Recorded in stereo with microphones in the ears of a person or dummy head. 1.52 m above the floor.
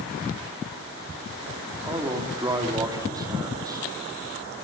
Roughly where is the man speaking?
Centre.